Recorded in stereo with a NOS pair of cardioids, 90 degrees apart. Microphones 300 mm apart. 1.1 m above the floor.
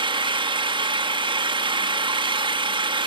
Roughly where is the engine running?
Ahead.